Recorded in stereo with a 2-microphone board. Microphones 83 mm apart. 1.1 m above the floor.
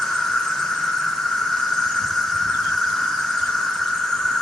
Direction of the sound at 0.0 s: 10° left (ahead or behind).